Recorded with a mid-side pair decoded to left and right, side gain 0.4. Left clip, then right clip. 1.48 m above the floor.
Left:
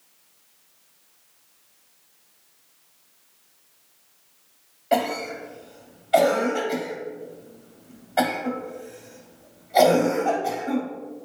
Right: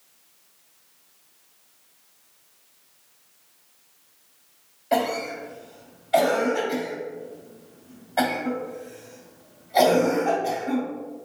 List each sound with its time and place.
4.9 s a cough: 30° left, 1.4 m